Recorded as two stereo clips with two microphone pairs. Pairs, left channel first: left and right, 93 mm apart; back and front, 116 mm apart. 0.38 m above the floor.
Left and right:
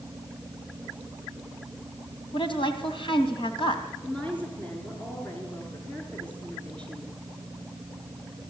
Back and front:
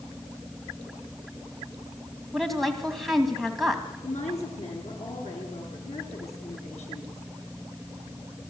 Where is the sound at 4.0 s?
165° left, 6 m.